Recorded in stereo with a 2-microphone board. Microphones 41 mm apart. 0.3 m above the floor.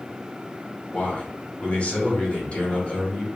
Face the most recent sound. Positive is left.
turn(degrees=35)  # may be behind; listen again after turning